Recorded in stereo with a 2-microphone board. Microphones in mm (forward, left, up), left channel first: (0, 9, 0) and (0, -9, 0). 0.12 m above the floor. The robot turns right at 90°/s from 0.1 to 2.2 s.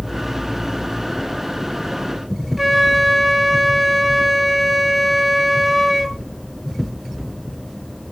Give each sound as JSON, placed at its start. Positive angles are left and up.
{"t": 2.6, "sound": "a flute", "side_deg": -5, "distance_m": 1.2}